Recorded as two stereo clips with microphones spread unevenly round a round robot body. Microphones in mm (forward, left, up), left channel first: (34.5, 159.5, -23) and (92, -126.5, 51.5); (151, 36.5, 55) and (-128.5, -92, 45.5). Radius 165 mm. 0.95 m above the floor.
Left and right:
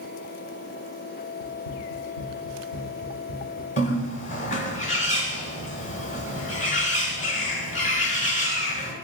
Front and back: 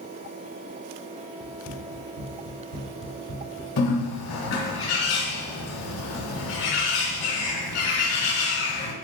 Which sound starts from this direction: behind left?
Running footsteps, at 1.4 s.